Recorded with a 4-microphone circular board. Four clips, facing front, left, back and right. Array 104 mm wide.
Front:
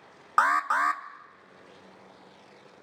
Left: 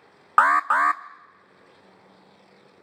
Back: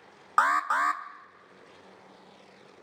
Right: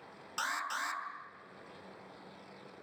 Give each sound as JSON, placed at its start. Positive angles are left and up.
{"t": 0.4, "sound": "an alarm", "azimuth_deg": 90, "distance_m": 0.5}